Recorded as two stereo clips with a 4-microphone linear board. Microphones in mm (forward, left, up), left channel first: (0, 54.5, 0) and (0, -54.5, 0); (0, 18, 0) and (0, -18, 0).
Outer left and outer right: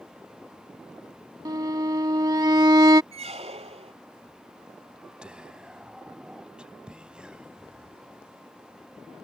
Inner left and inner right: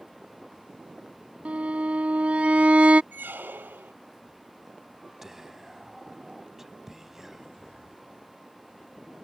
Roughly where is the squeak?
Right.